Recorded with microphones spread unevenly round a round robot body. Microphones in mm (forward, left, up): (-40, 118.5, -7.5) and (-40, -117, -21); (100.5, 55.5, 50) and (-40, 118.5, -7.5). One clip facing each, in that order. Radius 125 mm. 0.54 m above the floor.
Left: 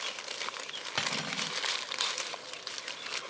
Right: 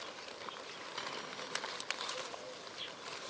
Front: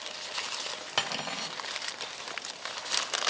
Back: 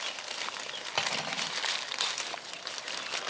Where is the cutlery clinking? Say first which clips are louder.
Left 8 dB, even; 70° left, 1.4 m.